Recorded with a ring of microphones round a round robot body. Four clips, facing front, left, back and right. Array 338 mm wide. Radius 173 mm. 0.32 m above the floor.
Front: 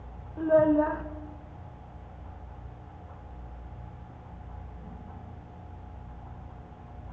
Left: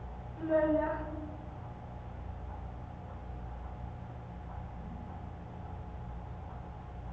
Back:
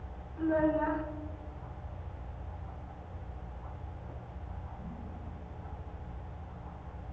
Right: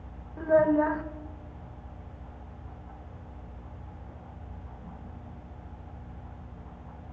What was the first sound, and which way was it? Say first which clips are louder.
A child speaking: right 6 dB, front 7 dB; 40° right.